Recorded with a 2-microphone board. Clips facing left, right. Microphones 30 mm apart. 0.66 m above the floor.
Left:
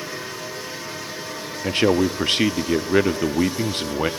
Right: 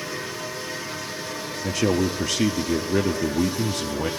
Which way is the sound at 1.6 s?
40° left (ahead or behind).